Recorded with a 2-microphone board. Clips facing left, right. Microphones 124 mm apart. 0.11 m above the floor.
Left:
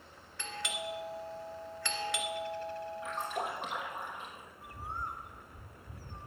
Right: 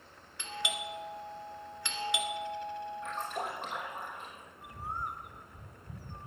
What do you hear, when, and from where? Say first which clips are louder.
0.4 s a doorbell: right 1 dB; 20° right (ahead or behind), 2 m
3.0 s a splash: left 2 dB; centre (ahead or behind), 5 m
4.6 s a bird: right 2 dB; 20° right (ahead or behind), 0.7 m